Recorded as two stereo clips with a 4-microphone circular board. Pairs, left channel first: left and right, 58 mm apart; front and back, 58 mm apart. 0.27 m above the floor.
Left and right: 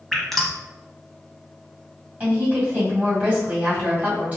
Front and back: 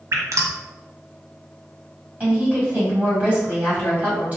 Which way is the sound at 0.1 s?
175° left.